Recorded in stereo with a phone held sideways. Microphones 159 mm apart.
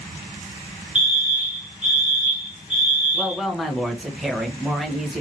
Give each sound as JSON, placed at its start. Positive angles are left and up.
{"t": 0.9, "sound": "a fire alarm", "side_deg": -5, "distance_m": 1.0}
{"t": 3.1, "sound": "a woman speaking", "side_deg": 0, "distance_m": 1.0}